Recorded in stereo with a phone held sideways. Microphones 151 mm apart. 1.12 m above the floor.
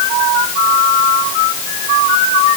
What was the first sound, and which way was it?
Only background noise.